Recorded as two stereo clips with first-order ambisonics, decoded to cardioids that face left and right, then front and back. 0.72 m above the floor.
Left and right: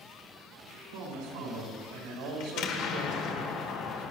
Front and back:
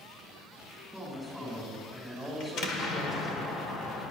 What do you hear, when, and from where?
0.9 s a man speaking: 90° right, 3.5 m; by 3.4 s 70° right, 3.5 m
2.4 s an explosion: 55° left, 1.4 m